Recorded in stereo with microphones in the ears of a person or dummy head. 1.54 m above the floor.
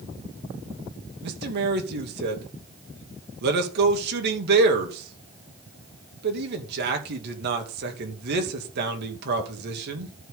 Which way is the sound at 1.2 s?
65° right (ahead or behind).